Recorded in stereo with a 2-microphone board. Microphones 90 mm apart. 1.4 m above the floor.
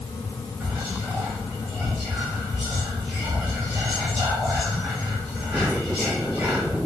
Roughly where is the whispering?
Right.